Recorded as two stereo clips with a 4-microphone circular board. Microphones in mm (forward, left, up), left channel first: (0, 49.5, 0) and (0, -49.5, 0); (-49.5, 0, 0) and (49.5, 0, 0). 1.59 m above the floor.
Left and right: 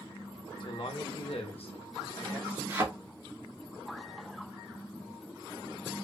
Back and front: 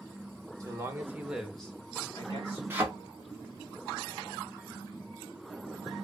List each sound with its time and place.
0.6 s a man speaking: 55° left, 0.8 m; by 2.6 s 140° left, 0.8 m
2.7 s a thud: 50° right, 1.0 m